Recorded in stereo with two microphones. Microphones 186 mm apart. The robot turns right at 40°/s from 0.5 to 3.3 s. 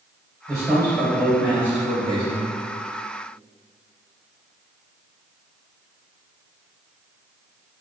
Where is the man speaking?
150° left, 1.5 m; by 2.5 s 130° right, 1.5 m.